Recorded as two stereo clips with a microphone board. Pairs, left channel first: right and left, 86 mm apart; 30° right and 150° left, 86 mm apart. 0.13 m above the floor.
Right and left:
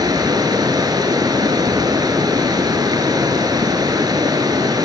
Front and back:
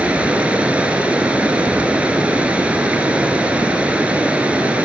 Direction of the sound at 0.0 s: 80° left.